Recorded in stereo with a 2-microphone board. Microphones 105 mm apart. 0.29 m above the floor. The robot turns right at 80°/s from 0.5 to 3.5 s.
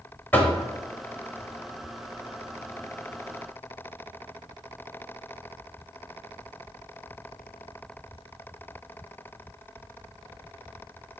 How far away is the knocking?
About 0.6 m.